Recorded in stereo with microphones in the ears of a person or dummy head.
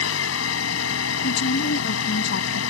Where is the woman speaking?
55° left (ahead or behind).